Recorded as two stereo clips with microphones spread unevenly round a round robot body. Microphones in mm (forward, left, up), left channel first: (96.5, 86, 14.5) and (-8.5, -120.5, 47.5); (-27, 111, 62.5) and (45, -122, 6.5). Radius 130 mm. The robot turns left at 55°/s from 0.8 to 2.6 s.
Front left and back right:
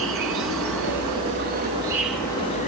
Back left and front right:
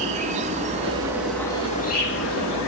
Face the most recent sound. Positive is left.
turn(degrees=125)